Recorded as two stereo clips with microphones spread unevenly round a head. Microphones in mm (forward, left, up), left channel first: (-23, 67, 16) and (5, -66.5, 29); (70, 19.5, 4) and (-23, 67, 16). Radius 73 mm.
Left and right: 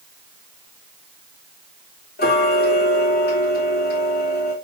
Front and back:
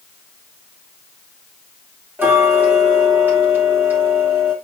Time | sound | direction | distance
2.2 | ticking | 80° left | 4 m